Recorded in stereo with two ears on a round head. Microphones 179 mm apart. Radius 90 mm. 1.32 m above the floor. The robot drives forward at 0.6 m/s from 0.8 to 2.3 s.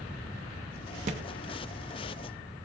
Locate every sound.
1.1 s a thud: 40° right (ahead or behind), 0.8 m